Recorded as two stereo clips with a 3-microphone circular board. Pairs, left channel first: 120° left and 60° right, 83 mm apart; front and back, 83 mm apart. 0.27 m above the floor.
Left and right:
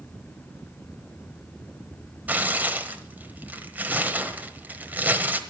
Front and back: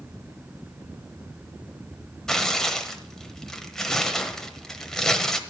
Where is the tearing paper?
75° right, 1.0 m.